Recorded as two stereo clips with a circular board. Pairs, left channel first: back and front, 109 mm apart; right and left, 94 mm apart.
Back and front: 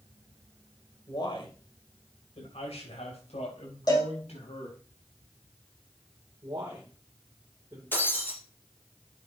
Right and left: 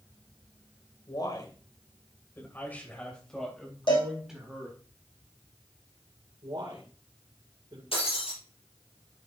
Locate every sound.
1.1 s a man speaking: 130° right, 2.5 m; by 4.8 s 170° left, 4 m
3.9 s a cowbell: 125° right, 5 m
6.4 s a man speaking: 55° left, 2.5 m
7.9 s breaking glass: 110° right, 6.5 m